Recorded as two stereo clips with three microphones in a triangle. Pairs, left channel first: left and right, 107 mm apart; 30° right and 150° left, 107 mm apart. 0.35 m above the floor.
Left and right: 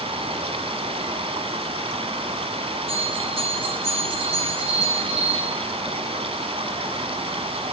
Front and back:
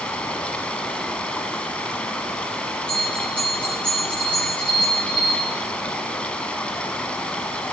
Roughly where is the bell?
Right.